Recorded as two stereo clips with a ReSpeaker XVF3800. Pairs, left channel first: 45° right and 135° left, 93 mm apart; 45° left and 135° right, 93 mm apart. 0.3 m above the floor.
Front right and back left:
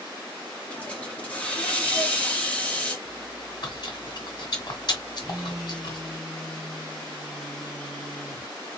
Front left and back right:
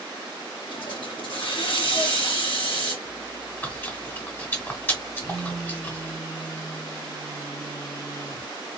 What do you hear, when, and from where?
0.7 s a hiss: 30° left, 1.8 m
3.0 s chewing: 20° right, 1.4 m
5.2 s a phone buzzing: 35° left, 2 m